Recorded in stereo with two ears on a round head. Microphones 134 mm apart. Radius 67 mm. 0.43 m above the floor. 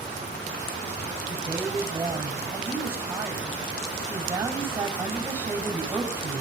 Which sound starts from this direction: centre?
A woman speaking, at 1.3 s.